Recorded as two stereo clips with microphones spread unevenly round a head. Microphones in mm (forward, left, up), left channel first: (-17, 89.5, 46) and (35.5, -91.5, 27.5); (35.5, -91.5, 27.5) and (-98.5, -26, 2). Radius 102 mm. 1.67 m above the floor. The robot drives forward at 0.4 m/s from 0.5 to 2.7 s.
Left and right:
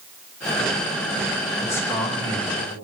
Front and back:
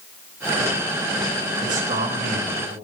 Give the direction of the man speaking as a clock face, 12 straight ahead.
6 o'clock.